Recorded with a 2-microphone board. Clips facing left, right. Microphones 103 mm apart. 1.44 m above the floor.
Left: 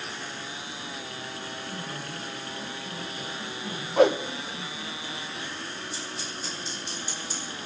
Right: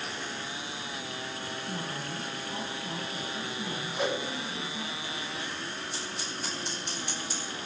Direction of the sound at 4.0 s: 65° left (ahead or behind).